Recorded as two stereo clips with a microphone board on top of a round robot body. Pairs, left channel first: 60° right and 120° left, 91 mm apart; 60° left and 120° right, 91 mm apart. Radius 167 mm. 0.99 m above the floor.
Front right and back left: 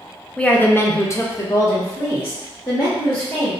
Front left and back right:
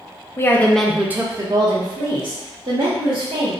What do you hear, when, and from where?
0.4 s a woman speaking: 15° left, 0.7 m; by 3.5 s 125° right, 1.8 m